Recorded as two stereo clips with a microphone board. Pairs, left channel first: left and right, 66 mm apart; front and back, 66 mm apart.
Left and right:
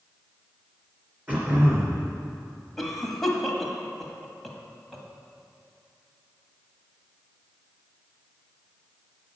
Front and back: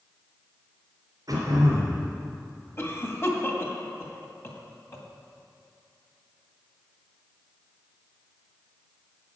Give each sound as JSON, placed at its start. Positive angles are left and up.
{"t": 1.3, "sound": "throat clearing", "azimuth_deg": -155, "distance_m": 3.0}
{"t": 2.8, "sound": "a cough", "azimuth_deg": 5, "distance_m": 1.8}